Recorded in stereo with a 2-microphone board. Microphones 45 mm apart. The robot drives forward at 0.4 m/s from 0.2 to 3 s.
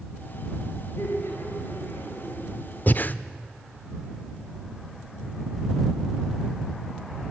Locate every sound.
1.0 s laughter: 80° left, 7 m
2.9 s breathing: 45° left (ahead or behind), 0.8 m